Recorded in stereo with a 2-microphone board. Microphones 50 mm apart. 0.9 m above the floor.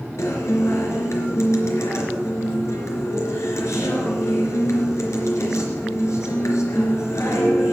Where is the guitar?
80° left, 3.5 m.